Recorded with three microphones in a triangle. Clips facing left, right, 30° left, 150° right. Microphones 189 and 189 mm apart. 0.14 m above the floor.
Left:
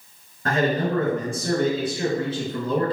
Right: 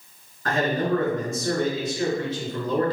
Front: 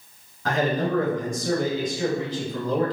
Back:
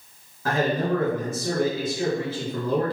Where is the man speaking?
130° left, 1.9 m.